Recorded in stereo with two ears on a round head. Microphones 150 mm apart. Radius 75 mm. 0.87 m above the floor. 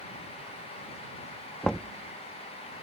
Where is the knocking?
5° left (ahead or behind).